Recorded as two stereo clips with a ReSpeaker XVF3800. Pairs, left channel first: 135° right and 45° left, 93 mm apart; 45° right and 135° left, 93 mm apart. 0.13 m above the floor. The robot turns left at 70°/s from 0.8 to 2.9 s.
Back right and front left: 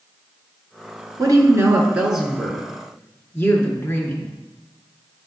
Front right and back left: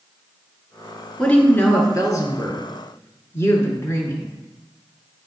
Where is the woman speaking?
30° left, 1.8 m; by 4.3 s 90° right, 1.8 m.